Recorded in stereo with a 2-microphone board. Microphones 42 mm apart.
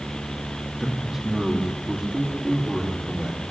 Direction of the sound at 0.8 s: 5° right (ahead or behind).